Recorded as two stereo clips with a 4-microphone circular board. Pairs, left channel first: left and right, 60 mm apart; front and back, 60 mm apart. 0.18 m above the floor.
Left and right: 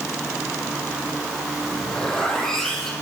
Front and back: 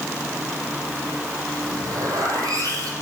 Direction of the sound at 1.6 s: 170° left.